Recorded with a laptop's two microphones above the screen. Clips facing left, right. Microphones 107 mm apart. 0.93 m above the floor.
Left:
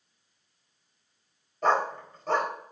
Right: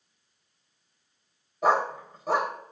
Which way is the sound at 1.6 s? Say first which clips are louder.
Right 1 dB; 10° right (ahead or behind).